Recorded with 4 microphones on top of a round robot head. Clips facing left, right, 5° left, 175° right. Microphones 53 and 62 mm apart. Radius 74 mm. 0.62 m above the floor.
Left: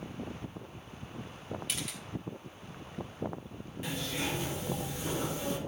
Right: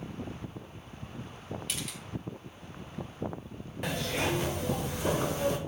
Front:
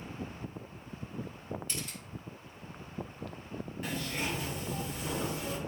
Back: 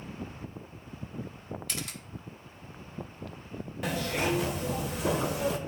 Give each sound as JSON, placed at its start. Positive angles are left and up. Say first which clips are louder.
{"t": 1.7, "sound": "a camera shutter", "louder": "even, back 2 dB", "azimuth_deg": 180, "distance_m": 1.1}
{"t": 3.8, "sound": "a zipper", "louder": "right 5 dB, back 7 dB", "azimuth_deg": -140, "distance_m": 0.6}